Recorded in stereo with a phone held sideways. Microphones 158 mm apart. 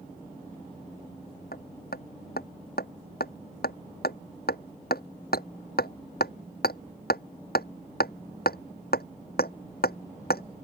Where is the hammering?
80° left.